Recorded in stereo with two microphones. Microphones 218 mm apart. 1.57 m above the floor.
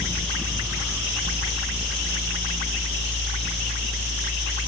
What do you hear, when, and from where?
Only background noise.